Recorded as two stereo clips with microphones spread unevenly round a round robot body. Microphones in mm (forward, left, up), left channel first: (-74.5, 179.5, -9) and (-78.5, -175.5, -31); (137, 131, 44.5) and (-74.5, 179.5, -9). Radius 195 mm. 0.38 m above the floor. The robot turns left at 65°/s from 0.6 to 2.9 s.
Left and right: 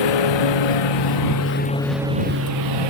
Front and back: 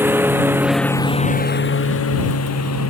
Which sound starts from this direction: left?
A lawn mower, at 0.0 s.